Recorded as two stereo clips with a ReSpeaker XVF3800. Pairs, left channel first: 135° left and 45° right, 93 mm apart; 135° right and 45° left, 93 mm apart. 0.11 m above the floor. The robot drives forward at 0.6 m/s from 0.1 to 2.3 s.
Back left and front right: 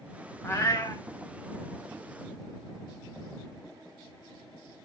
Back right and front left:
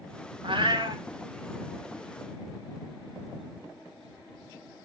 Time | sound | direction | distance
0.4 | a cat meowing | 70° left | 1.2 m